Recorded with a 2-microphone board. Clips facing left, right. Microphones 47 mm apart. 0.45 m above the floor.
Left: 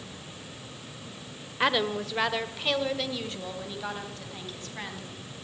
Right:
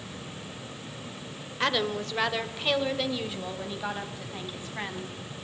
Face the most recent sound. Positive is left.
turn(degrees=-15)  # may be behind; listen again after turning